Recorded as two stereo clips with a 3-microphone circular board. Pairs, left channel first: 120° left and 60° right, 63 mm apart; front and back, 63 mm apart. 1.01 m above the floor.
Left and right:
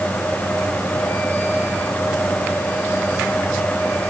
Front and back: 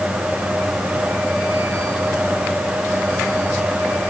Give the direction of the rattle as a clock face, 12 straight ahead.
I don't hear a rattle.